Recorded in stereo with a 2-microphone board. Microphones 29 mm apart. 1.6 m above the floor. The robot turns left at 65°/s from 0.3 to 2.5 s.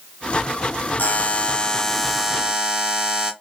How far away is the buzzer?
About 0.5 m.